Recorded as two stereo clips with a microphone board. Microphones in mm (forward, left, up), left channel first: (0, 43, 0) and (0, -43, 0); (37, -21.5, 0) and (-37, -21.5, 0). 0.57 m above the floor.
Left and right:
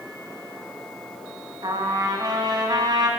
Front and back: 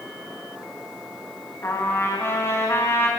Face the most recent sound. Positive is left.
turn(degrees=-55)